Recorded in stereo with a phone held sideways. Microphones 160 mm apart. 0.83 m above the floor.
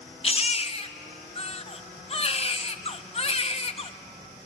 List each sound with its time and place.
0.2 s a baby crying: 40° left (ahead or behind), 0.6 m